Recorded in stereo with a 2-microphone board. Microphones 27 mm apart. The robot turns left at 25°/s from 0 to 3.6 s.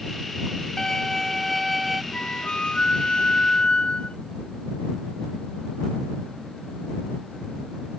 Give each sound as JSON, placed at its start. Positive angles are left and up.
{"t": 0.8, "sound": "a violin", "azimuth_deg": 25}
{"t": 2.1, "sound": "a flute", "azimuth_deg": 105}